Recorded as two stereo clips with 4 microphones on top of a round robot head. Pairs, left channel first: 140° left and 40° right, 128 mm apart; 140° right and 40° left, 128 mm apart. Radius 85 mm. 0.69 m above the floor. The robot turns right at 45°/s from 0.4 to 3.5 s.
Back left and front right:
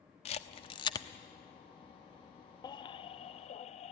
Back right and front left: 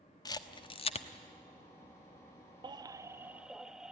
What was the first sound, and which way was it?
A camera shutter, 165° left.